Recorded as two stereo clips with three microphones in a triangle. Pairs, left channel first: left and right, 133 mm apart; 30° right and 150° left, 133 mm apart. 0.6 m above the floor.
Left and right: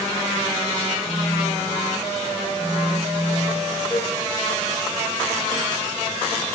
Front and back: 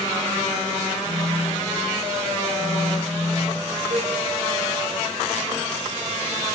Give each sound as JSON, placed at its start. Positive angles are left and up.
{"t": 1.1, "sound": "a phone buzzing", "azimuth_deg": -85, "distance_m": 1.0}
{"t": 3.9, "sound": "a cowbell", "azimuth_deg": 170, "distance_m": 4.5}